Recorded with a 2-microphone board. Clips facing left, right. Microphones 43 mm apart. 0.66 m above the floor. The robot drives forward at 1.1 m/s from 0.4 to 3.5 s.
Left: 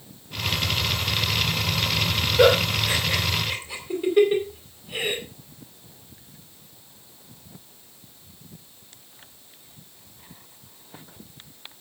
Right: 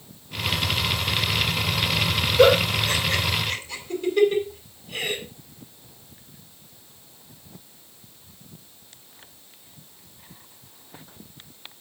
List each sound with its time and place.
2.4 s a giggle: 15° left (ahead or behind), 5 m; by 5.2 s 20° left (ahead or behind), 4 m